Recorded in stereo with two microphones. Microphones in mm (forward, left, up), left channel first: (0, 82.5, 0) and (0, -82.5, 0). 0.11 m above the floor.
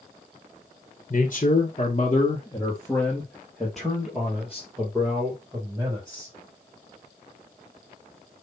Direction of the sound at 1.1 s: 50° left (ahead or behind).